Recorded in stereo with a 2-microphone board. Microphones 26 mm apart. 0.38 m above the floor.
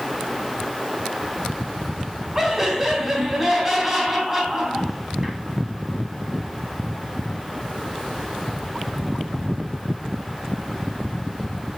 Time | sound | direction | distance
2.4 | laughter | 15° right (ahead or behind) | 3.5 m